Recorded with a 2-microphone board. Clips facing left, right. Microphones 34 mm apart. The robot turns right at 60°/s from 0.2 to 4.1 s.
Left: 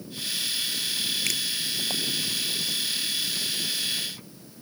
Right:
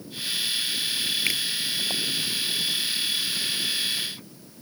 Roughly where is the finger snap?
Right.